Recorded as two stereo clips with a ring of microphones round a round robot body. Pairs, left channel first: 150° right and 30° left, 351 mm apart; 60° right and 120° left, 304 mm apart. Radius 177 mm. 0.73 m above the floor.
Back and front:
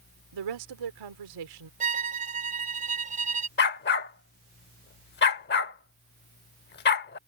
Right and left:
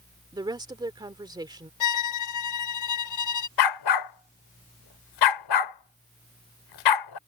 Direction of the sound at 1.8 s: 40° right.